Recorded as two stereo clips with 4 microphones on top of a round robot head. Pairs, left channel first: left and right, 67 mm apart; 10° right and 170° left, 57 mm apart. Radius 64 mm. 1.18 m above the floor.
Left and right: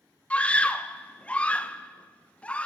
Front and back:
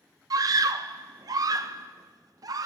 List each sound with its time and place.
0.3 s a scream: 160° left, 0.7 m